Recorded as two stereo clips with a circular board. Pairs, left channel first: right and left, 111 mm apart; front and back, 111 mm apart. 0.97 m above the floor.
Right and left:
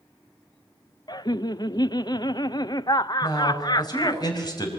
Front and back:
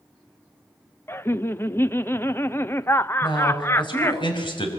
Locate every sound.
1.1 s laughter: 60° right, 0.6 m
3.2 s a man speaking: 40° right, 5 m